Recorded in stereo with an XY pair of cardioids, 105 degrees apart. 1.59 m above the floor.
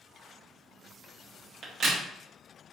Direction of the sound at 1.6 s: 65° right.